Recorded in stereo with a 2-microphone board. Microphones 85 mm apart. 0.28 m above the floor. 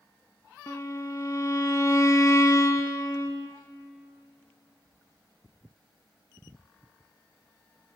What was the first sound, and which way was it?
A violin, 40° left (ahead or behind).